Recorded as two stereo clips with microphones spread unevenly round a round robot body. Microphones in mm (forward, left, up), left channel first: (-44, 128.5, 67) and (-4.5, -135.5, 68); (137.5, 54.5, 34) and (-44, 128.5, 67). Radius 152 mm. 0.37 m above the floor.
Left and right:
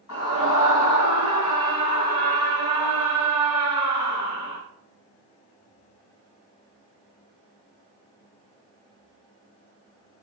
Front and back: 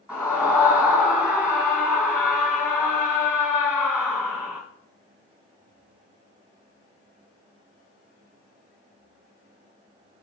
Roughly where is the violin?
No violin in this recording.